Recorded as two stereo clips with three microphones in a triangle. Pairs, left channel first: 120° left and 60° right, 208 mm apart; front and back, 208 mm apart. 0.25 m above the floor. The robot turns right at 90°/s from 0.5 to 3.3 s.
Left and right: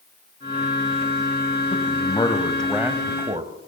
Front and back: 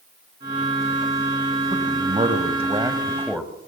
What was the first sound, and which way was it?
A man speaking, 125° left.